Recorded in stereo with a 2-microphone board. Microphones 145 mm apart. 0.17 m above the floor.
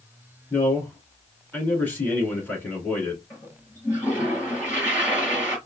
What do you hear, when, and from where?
0.5 s a man speaking: 10° left (ahead or behind), 2 m
3.3 s a toilet flushing: 20° left (ahead or behind), 3.5 m